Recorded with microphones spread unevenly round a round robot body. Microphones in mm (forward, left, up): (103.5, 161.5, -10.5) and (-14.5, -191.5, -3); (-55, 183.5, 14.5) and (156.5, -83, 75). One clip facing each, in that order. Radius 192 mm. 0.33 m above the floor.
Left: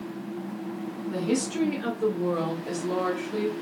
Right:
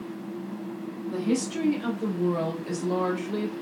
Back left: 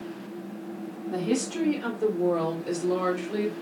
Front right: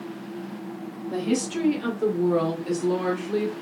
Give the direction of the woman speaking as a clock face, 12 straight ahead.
1 o'clock.